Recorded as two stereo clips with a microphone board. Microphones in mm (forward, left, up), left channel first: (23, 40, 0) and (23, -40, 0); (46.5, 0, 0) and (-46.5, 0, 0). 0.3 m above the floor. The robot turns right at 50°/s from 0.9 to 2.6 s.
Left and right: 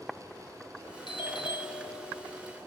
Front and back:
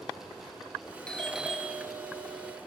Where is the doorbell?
80° left, 5.5 m; by 2.6 s 155° left, 5.5 m.